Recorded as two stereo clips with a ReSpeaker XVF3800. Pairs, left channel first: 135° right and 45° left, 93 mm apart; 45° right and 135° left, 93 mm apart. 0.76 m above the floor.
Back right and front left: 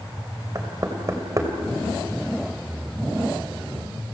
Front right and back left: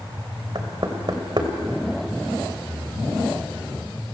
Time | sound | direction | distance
0.6 | knocking | 100° left | 2.5 m